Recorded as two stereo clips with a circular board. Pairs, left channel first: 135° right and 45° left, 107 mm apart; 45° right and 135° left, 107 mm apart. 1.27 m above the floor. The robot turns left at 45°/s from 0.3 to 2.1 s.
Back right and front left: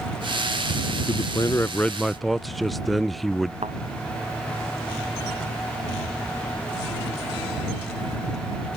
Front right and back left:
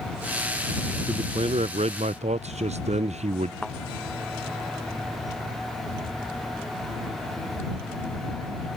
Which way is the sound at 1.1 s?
Straight behind.